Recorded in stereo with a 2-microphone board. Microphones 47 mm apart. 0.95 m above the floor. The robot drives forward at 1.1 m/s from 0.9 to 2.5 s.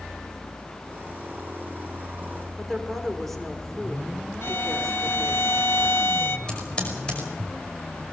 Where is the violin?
60° left (ahead or behind), 1.1 m.